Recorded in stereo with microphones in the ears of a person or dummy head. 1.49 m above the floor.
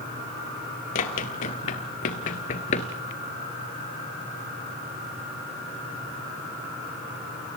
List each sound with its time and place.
0.9 s running footsteps: 45° left (ahead or behind), 2.5 m; by 2.9 s 35° left (ahead or behind), 1.7 m